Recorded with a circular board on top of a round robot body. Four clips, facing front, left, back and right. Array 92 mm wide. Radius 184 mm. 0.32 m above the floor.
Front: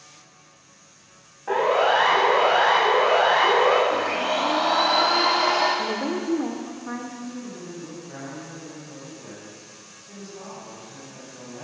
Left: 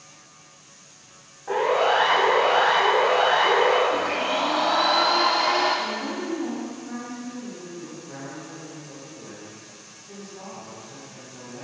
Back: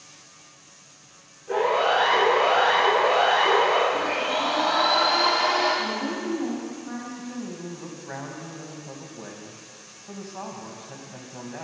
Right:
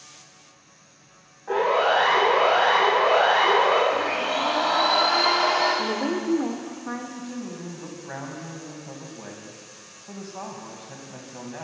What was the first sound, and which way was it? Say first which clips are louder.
A siren: even, front 2 dB; 10° left.